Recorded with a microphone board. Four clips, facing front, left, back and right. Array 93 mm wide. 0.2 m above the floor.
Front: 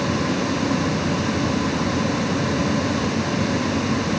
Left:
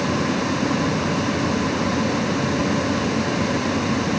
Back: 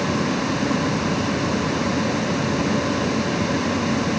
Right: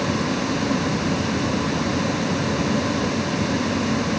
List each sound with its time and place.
Only background noise.